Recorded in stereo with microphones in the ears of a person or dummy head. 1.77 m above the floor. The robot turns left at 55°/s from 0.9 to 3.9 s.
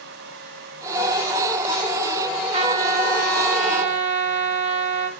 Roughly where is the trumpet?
Ahead right.